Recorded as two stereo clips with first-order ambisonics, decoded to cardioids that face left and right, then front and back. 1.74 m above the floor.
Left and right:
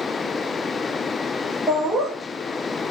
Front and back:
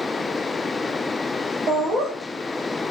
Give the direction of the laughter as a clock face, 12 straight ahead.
6 o'clock.